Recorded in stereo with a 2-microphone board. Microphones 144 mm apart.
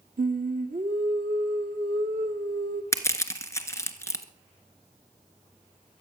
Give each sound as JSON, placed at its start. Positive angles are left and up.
{"t": 0.2, "sound": "singing", "side_deg": -75, "distance_m": 1.9}
{"t": 2.9, "sound": "crushing", "side_deg": 20, "distance_m": 1.3}